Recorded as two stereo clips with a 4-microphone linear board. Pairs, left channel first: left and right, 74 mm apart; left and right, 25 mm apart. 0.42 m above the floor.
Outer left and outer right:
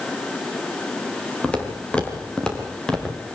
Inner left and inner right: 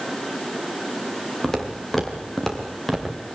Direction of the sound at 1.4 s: 15° left (ahead or behind).